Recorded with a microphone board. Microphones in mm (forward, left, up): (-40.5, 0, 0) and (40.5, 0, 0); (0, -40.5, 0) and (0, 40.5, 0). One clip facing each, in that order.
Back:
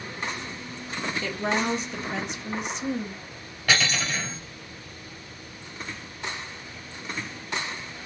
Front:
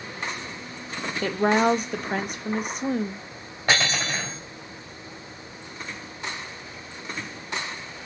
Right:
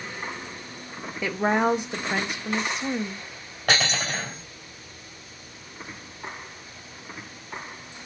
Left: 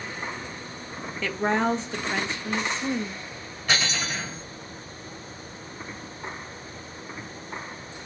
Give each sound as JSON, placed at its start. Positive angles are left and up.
{"t": 1.2, "sound": "a woman speaking", "azimuth_deg": -20, "distance_m": 0.6}
{"t": 3.7, "sound": "cutlery clinking", "azimuth_deg": -55, "distance_m": 1.9}